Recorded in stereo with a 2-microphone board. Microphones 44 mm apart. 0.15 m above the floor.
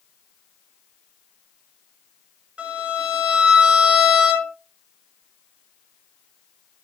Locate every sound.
2.6 s a violin: 25° right (ahead or behind), 1.2 m